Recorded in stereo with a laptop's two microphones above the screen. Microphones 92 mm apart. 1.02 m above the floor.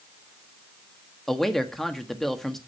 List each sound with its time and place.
1.3 s a man speaking: 5° left (ahead or behind), 1.5 m